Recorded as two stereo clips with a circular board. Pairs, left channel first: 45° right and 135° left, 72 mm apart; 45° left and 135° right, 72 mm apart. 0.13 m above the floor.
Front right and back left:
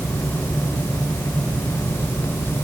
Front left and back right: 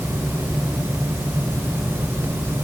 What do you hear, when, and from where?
Only background noise.